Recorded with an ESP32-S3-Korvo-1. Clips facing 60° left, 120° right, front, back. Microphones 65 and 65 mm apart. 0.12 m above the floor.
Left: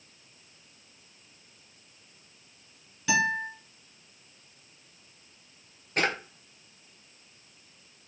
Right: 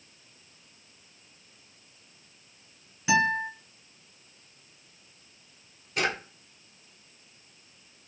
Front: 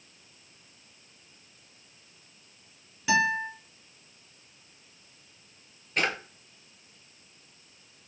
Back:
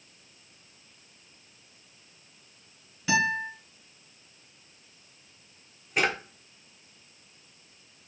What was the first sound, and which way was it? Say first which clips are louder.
A guitar: right 2 dB, front 1 dB; 90° right.